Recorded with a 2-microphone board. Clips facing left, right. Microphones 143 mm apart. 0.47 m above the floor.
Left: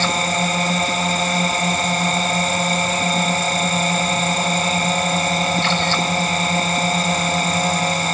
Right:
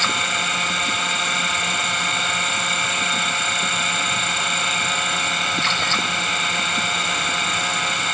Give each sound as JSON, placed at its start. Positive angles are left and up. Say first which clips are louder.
{"t": 0.0, "sound": "a drone", "louder": "left 6 dB", "side_deg": 40}